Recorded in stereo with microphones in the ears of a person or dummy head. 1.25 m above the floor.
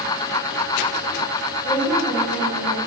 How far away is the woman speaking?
About 5 m.